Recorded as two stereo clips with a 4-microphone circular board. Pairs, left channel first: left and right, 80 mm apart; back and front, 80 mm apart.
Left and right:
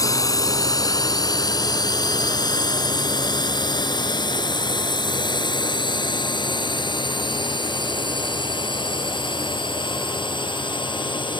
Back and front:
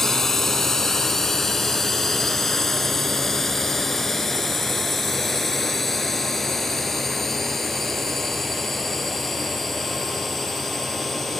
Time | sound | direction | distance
0.0 | a drone | 95° left | ?